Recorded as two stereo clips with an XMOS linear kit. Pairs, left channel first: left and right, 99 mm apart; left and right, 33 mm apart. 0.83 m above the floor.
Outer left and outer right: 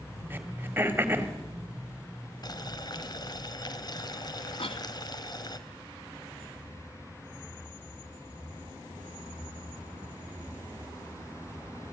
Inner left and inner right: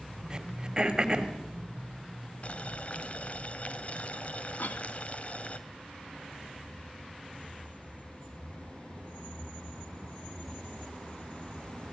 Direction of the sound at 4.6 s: 65° left (ahead or behind).